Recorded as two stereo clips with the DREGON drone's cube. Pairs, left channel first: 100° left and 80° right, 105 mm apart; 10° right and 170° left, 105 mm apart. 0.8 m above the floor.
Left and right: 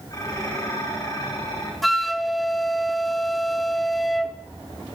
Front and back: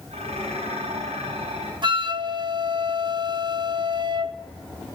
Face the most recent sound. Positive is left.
turn(degrees=-170)